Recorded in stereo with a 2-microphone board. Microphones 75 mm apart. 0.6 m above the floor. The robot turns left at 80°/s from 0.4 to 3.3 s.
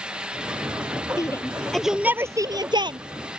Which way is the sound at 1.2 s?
50° left (ahead or behind).